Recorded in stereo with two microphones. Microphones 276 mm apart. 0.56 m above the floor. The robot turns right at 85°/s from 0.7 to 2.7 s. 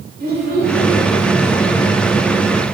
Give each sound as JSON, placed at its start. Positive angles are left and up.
{"t": 0.2, "sound": "a child speaking", "side_deg": -35, "distance_m": 1.5}